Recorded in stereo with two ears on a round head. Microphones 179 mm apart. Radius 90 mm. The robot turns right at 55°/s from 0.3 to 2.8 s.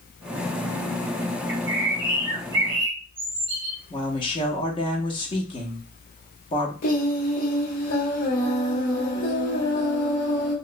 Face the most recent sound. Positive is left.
turn(degrees=50)  # may be behind; listen again after turning